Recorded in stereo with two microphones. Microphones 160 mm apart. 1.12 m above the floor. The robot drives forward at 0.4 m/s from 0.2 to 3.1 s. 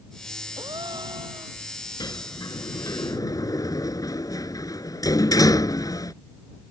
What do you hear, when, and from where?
0.6 s a gasp: 30° right (ahead or behind)
2.0 s a sliding door: 25° left (ahead or behind); by 6.1 s 20° left (ahead or behind)